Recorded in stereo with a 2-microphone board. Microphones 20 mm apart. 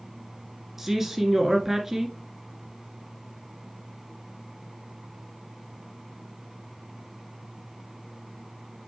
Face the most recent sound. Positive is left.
turn(degrees=-15)  # may be behind; listen again after turning